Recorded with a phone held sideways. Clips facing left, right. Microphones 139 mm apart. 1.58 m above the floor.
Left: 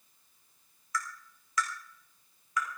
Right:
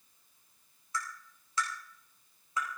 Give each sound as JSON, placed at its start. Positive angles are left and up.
{"t": 0.9, "sound": "tapping", "side_deg": -25, "distance_m": 4.5}